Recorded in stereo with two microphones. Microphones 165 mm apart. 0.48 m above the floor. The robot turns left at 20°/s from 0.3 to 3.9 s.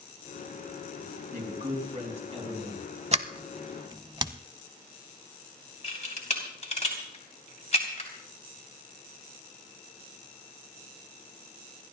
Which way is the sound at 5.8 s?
45° left (ahead or behind).